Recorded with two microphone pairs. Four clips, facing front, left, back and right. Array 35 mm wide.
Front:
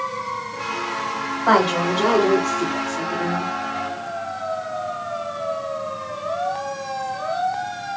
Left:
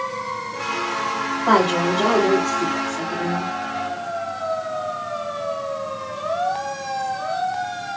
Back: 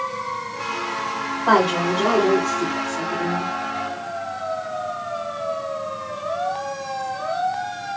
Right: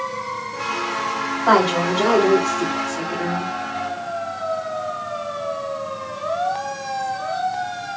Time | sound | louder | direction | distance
1.5 | a woman speaking | right 1 dB, even | 50° right | 2 m